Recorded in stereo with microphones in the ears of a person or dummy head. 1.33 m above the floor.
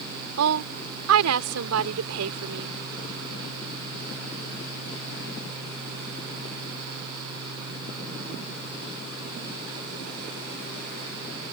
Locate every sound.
0.4 s a woman speaking: 85° right